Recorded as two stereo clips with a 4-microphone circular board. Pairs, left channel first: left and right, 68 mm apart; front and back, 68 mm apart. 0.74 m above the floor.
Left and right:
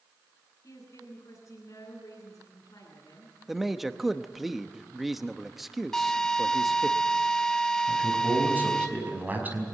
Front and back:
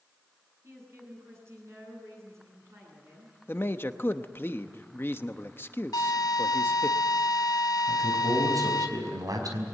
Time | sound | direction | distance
0.6 | a woman speaking | 130° left | 10 m
3.5 | a man speaking | 5° right | 0.9 m
5.9 | a drill | 5° left | 2.5 m
7.9 | a man speaking | 155° right | 5 m